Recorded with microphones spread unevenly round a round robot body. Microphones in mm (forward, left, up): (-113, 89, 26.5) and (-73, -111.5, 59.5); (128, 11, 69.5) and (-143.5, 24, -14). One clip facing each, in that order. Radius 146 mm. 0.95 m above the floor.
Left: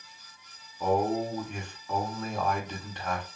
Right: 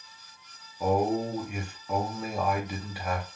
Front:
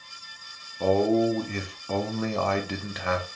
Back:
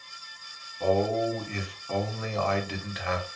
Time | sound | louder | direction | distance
0.8 | a man speaking | right 1 dB, front 4 dB | 10° left | 0.7 m